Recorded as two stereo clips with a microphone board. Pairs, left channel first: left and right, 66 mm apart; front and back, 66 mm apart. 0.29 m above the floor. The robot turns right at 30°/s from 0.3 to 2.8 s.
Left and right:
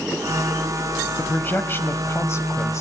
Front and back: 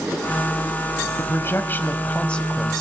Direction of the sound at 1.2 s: 35° left.